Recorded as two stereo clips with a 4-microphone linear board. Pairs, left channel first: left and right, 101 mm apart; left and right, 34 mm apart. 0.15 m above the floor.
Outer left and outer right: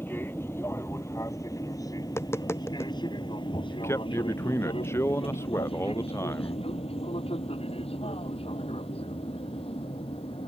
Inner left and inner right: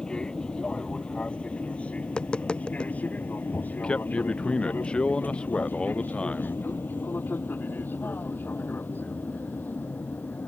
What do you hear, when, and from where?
0.0 s an aircraft: 20° left (ahead or behind); by 10.5 s 65° left (ahead or behind)
2.0 s tapping: 25° left (ahead or behind)
3.7 s a man speaking: 25° left (ahead or behind)